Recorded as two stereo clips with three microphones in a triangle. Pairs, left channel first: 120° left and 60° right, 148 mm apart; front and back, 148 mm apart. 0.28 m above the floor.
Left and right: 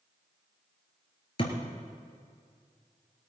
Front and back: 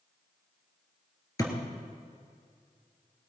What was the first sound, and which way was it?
A thud, 65° left.